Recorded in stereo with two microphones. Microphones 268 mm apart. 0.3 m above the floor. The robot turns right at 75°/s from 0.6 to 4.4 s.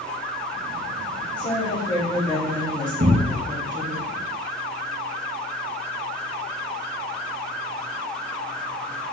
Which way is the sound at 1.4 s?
30° left (ahead or behind).